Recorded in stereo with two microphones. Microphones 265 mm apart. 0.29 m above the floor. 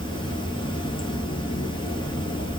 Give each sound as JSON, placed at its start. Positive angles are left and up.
{"t": 0.0, "sound": "running water", "side_deg": 20, "distance_m": 0.8}